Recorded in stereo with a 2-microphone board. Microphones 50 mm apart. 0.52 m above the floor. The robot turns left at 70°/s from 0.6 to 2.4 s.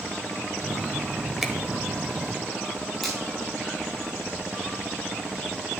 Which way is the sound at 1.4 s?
5° right (ahead or behind).